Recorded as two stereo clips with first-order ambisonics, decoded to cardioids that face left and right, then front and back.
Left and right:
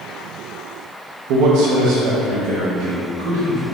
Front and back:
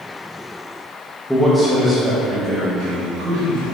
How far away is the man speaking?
About 0.5 m.